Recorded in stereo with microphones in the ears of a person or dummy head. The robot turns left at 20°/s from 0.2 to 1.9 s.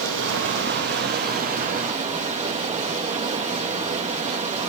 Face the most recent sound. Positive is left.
turn(degrees=-145)